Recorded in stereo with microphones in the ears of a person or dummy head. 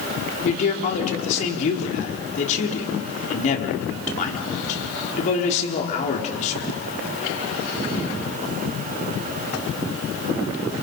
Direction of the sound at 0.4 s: 45° left (ahead or behind).